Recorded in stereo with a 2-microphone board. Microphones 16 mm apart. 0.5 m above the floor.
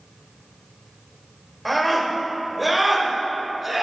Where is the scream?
Centre (ahead or behind), 2.5 m; by 3.8 s 20° right (ahead or behind), 3 m.